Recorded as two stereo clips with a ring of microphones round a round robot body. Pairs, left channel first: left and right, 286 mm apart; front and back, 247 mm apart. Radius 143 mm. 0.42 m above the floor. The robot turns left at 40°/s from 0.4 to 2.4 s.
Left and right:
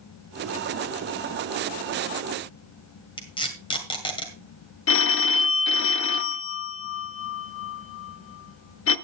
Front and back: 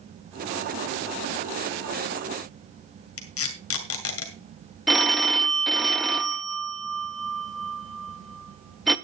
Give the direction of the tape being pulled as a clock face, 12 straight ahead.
11 o'clock.